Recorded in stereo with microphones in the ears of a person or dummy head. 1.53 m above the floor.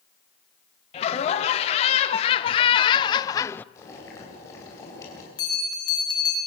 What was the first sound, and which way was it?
Laughter, 40° left (ahead or behind).